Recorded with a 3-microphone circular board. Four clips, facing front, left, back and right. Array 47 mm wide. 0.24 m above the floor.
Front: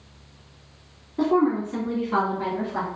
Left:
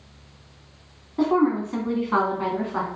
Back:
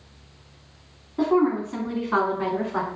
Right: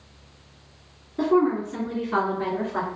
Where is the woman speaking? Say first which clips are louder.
Even, even; 105° left, 1.8 m; by 2.9 s 135° left, 2 m.